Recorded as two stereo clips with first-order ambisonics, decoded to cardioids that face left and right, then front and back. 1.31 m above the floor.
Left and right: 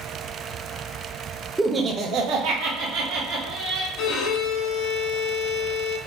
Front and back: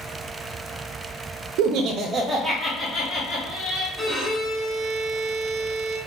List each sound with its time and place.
1.6 s laughter: 175° right, 0.5 m; by 3.9 s 70° right, 1.3 m
4.0 s a violin: 85° left, 0.9 m